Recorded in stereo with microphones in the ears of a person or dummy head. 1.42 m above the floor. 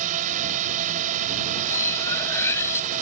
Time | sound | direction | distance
0.0 | a drone | 40° right (ahead or behind) | ?
1.7 | cutlery clinking | 15° left (ahead or behind) | ?